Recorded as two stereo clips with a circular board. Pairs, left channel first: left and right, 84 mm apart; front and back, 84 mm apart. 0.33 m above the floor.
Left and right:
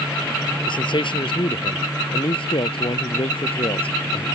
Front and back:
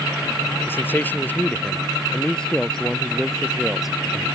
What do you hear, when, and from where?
0.7 s a man speaking: 65° left; by 4.3 s 95° left